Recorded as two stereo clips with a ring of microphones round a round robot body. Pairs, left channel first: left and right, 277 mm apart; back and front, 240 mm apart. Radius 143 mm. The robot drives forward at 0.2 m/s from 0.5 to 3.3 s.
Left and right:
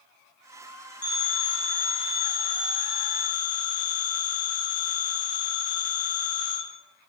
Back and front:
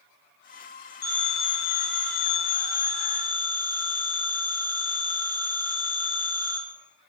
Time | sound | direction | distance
1.0 | a phone ringing | 175° left | 3 m